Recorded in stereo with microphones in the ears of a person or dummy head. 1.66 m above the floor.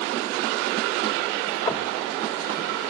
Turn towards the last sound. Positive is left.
turn(degrees=25)  # may be behind; listen again after turning